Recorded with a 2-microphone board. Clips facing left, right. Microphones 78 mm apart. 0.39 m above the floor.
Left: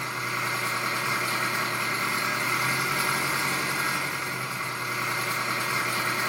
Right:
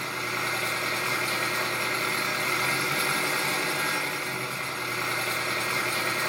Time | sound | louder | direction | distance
0.0 | an engine running | left 1 dB | 15° left (ahead or behind) | 1.2 m